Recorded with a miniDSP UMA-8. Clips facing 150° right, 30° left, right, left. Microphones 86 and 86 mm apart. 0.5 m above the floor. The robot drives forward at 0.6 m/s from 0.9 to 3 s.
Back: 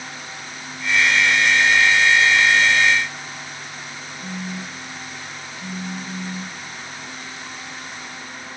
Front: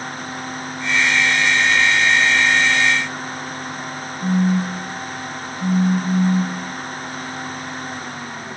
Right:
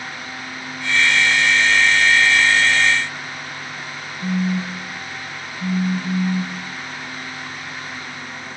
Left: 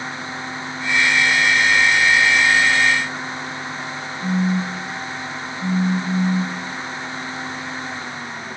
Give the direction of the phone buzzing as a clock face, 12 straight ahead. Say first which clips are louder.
Front 13 dB, left 1 dB; 1 o'clock.